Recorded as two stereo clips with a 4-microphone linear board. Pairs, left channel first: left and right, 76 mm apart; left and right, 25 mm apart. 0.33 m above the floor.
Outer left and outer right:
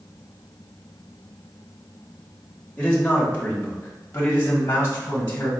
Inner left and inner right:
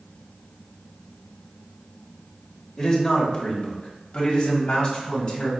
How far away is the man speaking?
About 0.9 m.